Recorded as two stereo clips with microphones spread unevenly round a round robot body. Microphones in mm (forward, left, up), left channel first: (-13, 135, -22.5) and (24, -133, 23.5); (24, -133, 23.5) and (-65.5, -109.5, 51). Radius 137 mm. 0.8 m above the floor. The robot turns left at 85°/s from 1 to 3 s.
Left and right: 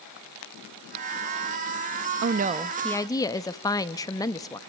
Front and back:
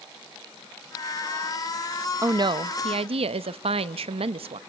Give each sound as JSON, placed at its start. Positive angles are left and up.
{"t": 2.2, "sound": "a woman speaking", "azimuth_deg": -130, "distance_m": 0.6}